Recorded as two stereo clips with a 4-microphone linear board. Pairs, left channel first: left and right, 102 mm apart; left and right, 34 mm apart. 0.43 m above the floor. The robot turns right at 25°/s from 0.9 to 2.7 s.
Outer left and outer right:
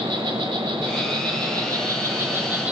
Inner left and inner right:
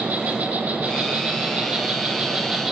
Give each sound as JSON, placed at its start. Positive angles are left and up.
{"t": 0.0, "sound": "an insect", "azimuth_deg": -60, "distance_m": 1.7}